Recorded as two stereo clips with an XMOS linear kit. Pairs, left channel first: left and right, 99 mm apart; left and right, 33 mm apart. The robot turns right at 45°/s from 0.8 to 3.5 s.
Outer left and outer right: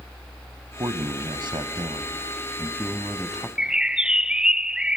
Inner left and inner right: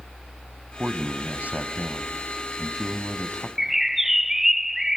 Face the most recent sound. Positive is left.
turn(degrees=-10)  # may be behind; listen again after turning